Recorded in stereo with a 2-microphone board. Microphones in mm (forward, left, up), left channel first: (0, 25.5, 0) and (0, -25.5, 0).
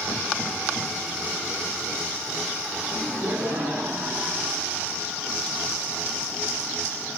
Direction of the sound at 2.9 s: 55° right (ahead or behind).